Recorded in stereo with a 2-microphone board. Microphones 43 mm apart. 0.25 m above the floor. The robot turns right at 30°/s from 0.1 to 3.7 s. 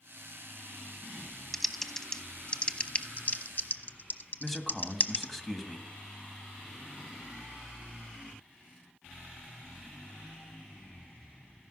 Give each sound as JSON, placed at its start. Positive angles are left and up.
{"t": 1.5, "sound": "typing on a keyboard", "side_deg": 0, "distance_m": 0.8}
{"t": 4.4, "sound": "a man speaking", "side_deg": 5, "distance_m": 1.7}